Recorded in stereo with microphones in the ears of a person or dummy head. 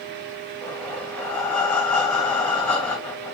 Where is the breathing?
15° left (ahead or behind), 1.2 m.